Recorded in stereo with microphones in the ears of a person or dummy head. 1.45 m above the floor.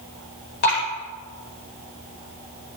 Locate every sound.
0.6 s dripping: 55° left (ahead or behind), 5 m